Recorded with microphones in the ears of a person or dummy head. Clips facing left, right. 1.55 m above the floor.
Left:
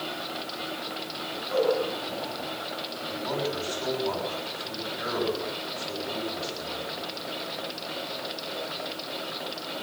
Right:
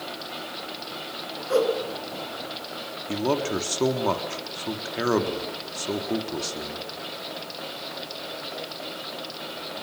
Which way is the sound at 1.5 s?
65° right (ahead or behind).